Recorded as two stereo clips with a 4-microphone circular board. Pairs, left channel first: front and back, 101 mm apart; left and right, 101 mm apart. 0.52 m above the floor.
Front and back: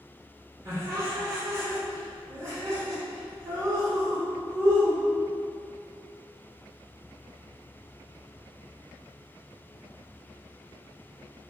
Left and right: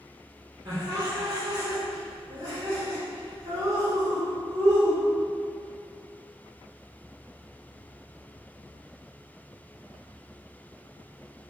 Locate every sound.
0.7 s laughter: 125° right, 1.9 m